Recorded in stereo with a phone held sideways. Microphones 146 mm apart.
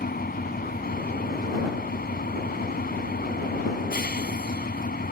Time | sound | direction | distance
0.0 | an engine running | 80° left | ?